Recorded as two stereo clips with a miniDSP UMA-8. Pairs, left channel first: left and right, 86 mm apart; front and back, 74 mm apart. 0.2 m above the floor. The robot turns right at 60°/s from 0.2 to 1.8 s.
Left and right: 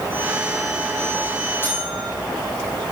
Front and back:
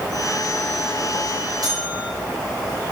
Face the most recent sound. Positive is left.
turn(degrees=165)